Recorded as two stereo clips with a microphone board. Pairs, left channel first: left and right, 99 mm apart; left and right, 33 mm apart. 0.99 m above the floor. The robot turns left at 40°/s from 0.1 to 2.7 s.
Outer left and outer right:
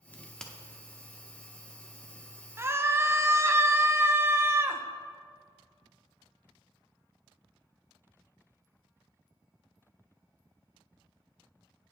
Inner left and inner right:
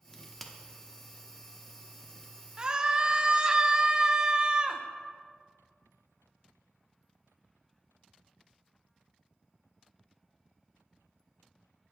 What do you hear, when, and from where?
0.1 s a crack: 20° left (ahead or behind), 1.0 m; by 0.5 s 5° left (ahead or behind), 1.0 m
2.6 s a scream: 25° right (ahead or behind), 0.7 m